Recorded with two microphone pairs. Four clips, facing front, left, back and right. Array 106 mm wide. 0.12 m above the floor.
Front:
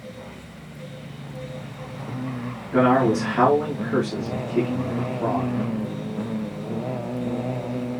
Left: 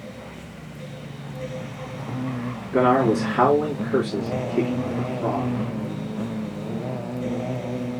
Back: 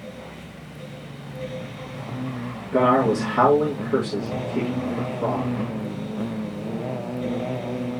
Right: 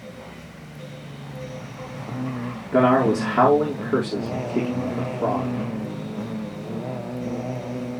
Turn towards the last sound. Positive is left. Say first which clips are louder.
# right 1 dB, even
turn(degrees=-95)